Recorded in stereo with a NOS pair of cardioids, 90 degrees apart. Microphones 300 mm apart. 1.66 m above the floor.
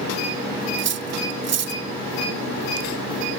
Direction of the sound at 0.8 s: 60° right.